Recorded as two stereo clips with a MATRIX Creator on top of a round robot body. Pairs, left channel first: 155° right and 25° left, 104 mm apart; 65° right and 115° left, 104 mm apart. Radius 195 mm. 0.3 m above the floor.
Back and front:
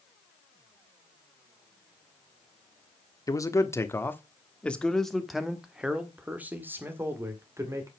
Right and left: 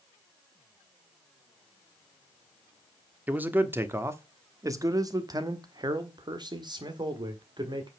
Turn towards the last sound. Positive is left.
turn(degrees=80)